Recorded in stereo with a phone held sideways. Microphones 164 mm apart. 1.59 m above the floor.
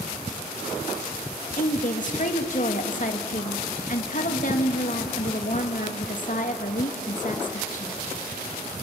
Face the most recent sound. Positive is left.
turn(degrees=50)  # may be behind; listen again after turning